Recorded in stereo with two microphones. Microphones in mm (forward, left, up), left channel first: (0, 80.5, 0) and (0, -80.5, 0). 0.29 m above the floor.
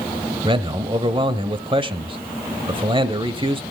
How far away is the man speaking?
About 1.1 m.